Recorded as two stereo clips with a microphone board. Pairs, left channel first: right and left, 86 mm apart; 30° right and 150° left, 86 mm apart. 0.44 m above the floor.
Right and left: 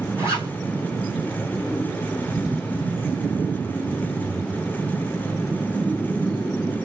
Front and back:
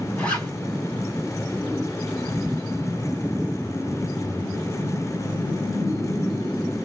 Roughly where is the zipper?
Ahead left.